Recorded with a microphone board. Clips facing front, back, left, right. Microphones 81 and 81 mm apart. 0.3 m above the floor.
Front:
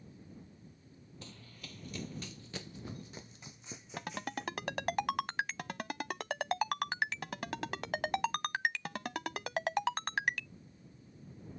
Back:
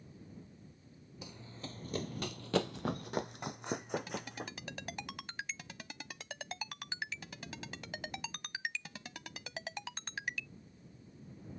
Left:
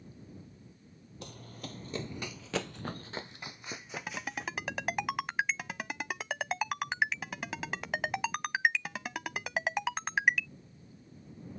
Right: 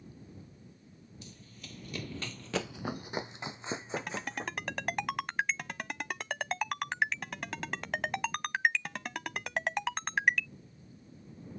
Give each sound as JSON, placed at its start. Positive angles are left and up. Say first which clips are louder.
{"t": 1.2, "sound": "running footsteps", "louder": "back 6 dB, left 9 dB", "azimuth_deg": 105}
{"t": 4.0, "sound": "a ringtone", "louder": "front 1 dB, right 2 dB", "azimuth_deg": 5}